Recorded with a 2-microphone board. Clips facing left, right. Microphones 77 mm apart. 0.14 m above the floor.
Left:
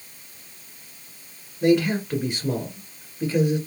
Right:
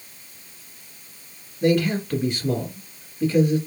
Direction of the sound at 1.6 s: 10° left (ahead or behind).